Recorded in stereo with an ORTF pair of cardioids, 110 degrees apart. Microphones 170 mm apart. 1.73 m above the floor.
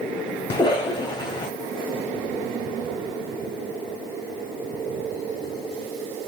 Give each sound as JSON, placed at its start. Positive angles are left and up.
{"t": 0.5, "sound": "a cough", "azimuth_deg": 25, "distance_m": 1.2}